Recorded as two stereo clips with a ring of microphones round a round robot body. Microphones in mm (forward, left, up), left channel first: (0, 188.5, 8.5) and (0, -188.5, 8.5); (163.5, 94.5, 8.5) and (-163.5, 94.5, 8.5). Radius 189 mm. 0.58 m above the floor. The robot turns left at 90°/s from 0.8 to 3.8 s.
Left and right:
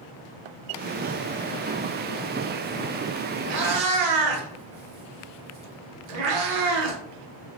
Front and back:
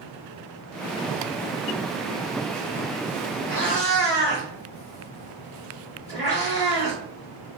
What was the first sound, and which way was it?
A cat meowing, 45° right.